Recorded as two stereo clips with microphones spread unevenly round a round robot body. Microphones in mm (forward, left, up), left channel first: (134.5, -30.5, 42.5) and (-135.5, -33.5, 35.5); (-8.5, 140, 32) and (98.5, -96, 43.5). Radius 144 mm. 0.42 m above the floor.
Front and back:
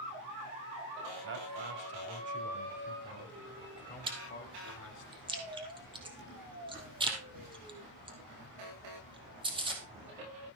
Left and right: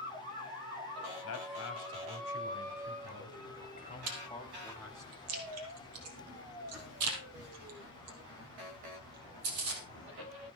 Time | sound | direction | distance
1.2 | a man speaking | 145° left | 2.5 m
4.1 | chewing | 105° right | 3.5 m